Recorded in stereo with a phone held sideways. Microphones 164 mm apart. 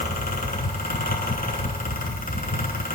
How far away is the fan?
About 9.5 m.